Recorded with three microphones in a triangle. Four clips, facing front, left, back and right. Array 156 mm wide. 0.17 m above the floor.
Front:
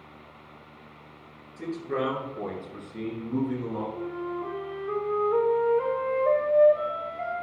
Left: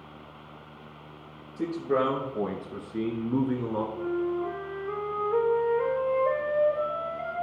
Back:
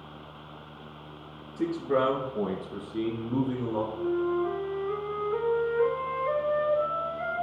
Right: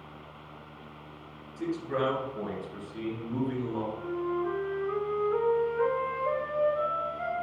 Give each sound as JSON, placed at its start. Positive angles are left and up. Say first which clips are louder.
{"t": 1.6, "sound": "a man speaking", "louder": "left 4 dB, back 4 dB", "azimuth_deg": 120, "distance_m": 2.5}
{"t": 4.0, "sound": "a flute", "louder": "left 3 dB, back 5 dB", "azimuth_deg": 20, "distance_m": 3.0}